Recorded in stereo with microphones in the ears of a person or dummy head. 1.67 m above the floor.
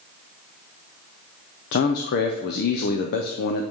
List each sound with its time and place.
1.7 s a man speaking: 55° left (ahead or behind), 0.6 m